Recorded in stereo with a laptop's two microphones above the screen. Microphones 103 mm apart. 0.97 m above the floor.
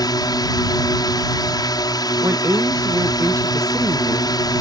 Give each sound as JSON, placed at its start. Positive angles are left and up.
{"t": 0.0, "sound": "a drone", "side_deg": 40}
{"t": 2.2, "sound": "a woman speaking", "side_deg": -25}